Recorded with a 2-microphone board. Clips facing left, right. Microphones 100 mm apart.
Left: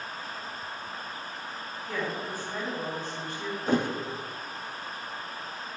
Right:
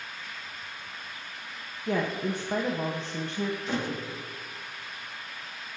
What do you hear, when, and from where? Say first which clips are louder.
1.9 s a woman speaking: right 5 dB; 75° right (ahead or behind), 1.6 m
3.7 s a thud: left 5 dB; 45° left (ahead or behind), 1.3 m